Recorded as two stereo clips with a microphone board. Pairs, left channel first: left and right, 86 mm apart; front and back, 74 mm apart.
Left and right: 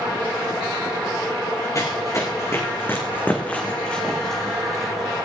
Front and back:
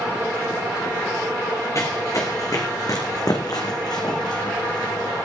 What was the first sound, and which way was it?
Running footsteps, 45° left.